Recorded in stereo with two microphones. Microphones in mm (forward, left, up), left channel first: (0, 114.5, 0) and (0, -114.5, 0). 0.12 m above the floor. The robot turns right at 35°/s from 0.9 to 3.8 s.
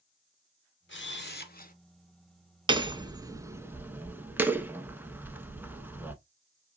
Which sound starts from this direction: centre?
Hammering, at 2.7 s.